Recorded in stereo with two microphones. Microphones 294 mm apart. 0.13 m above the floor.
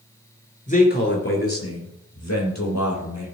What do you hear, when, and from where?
0.7 s a man speaking: 25° left (ahead or behind), 2.5 m; by 3.4 s 70° left (ahead or behind), 5 m